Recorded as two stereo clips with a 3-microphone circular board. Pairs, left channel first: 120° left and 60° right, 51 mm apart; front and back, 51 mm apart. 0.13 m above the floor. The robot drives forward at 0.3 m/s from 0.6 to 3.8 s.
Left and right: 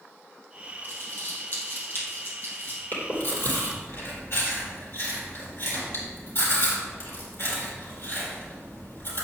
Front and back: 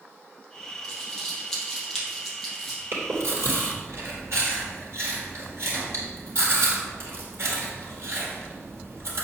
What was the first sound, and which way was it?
Crumpling, 75° left.